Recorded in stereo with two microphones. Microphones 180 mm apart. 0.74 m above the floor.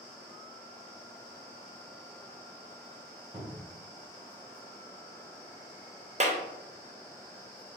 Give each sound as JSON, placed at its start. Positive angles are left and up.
{"t": 3.3, "sound": "a cupboard door", "side_deg": -15, "distance_m": 1.6}
{"t": 6.2, "sound": "a clap", "side_deg": -40, "distance_m": 0.6}